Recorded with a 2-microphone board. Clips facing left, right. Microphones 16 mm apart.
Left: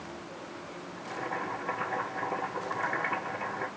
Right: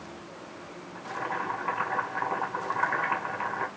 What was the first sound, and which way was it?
Boiling, 65° right (ahead or behind).